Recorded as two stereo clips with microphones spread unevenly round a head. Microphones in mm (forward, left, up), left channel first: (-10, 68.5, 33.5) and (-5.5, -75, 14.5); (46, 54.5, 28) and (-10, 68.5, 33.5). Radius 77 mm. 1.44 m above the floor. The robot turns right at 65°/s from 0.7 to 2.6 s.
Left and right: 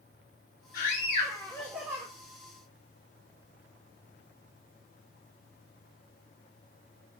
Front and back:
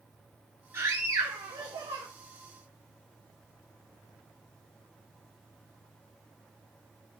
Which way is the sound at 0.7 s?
120° left.